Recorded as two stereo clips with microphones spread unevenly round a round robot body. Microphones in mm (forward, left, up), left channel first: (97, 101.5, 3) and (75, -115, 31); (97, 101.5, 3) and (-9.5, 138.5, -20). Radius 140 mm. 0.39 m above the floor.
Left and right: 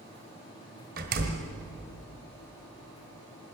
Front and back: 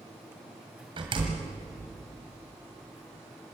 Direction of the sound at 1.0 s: 150° right.